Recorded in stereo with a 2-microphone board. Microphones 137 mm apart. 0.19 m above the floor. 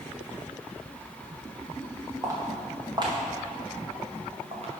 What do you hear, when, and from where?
2.2 s footsteps: 25° right (ahead or behind), 3 m; by 4.7 s 50° right (ahead or behind), 3.5 m